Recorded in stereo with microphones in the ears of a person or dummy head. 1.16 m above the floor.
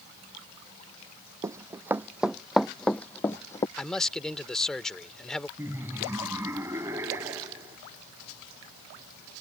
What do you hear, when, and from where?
1.4 s running footsteps: 20° right (ahead or behind); by 3.7 s 20° left (ahead or behind)
3.8 s a man speaking: centre (ahead or behind)
5.6 s laughter: 15° right (ahead or behind)